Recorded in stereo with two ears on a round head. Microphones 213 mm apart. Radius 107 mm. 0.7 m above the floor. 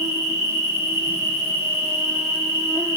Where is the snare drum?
No snare drum in this recording.